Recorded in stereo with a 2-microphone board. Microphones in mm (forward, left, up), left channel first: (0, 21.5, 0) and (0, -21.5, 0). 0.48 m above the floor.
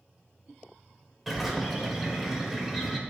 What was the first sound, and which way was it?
A bird, 5° right (ahead or behind).